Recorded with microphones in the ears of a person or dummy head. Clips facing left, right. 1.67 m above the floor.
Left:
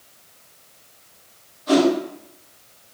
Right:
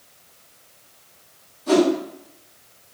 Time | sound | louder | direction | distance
1.7 | a whoosh | even | 50° right (ahead or behind) | 1.6 m